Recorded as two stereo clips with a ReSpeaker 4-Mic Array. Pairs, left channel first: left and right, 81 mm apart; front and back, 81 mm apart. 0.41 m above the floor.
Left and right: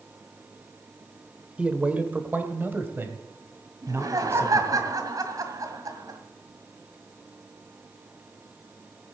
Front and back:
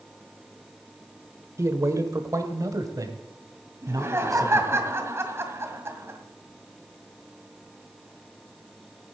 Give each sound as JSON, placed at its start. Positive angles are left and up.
{"t": 1.6, "sound": "a man speaking", "azimuth_deg": -155, "distance_m": 1.1}
{"t": 3.8, "sound": "laughter", "azimuth_deg": -125, "distance_m": 2.0}